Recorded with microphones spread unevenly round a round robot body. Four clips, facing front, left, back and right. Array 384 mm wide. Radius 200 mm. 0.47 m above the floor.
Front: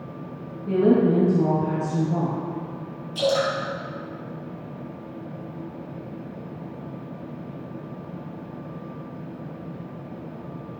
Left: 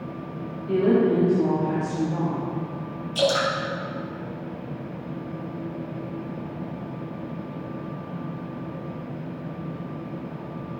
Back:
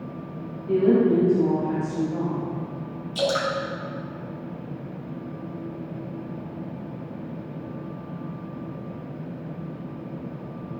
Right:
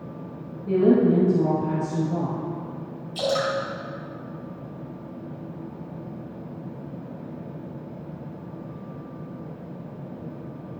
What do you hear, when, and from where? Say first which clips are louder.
0.7 s a woman speaking: right 2 dB, even; 30° right, 2.5 m
3.1 s dripping: left 2 dB, front 2 dB; 145° left, 2.5 m